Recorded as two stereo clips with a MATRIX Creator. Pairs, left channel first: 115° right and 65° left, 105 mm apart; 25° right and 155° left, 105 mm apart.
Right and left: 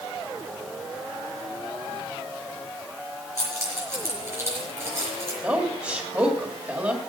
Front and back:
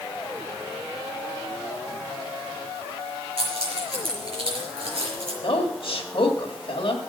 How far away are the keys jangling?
About 5 m.